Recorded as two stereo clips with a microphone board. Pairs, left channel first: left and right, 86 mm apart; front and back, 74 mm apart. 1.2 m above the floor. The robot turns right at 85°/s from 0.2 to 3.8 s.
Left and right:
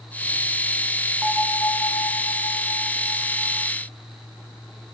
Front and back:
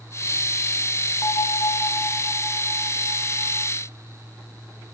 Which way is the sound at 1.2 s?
10° right.